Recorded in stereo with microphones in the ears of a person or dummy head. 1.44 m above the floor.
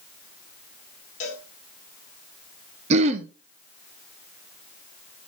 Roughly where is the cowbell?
Left.